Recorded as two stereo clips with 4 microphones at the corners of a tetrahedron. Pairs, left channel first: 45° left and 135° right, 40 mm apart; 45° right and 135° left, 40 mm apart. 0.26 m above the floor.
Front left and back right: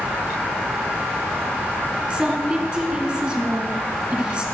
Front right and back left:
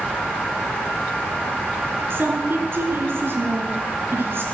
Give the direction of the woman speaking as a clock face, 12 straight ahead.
7 o'clock.